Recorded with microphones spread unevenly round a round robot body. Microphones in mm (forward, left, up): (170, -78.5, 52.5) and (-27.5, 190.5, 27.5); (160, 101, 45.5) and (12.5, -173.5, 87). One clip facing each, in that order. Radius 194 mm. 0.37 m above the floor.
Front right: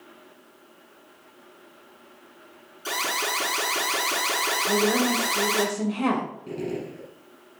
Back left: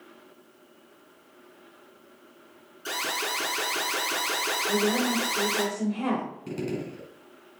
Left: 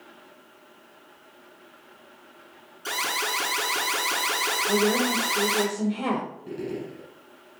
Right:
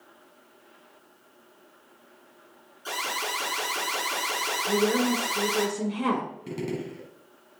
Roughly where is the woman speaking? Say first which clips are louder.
Front right 3 dB, even; ahead right.